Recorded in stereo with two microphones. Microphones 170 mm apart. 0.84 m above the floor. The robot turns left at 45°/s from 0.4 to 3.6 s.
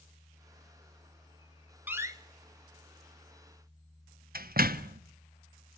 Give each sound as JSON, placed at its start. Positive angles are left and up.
{"t": 1.9, "sound": "a door slam", "side_deg": -10, "distance_m": 1.0}